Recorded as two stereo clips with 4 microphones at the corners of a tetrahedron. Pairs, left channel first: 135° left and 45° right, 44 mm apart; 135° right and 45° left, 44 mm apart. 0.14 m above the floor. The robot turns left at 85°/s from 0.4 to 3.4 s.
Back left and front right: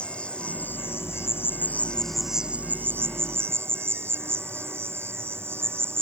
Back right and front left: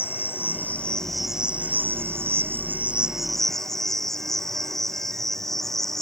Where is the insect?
160° right; by 6.0 s 55° right.